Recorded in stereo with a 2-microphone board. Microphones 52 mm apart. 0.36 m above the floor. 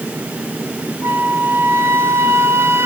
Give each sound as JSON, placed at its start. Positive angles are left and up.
{"t": 1.0, "sound": "a flute", "side_deg": -50, "distance_m": 0.8}